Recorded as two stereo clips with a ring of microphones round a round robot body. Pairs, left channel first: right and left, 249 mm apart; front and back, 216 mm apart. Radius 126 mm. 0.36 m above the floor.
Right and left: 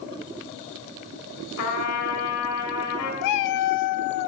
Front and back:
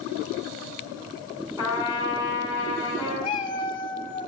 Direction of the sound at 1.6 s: 75° right.